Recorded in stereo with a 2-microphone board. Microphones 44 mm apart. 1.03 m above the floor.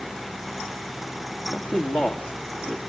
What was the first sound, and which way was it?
A man speaking, 40° left (ahead or behind).